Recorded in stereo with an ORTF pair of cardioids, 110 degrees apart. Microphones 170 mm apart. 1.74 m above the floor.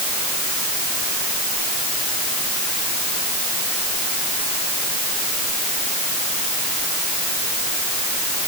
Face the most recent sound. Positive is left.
No sound to turn to.